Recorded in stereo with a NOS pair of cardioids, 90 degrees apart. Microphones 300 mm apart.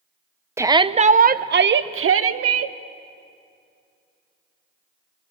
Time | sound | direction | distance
0.6 | a shout | 10° right | 0.9 m